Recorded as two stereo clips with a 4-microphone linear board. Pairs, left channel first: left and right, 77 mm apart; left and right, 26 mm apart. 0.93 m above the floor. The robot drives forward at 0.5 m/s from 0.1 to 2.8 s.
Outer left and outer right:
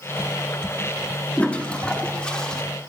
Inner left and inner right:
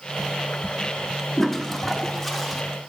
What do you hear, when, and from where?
1.4 s a toilet flushing: 15° left (ahead or behind), 1.1 m; by 2.6 s 10° left (ahead or behind), 1.7 m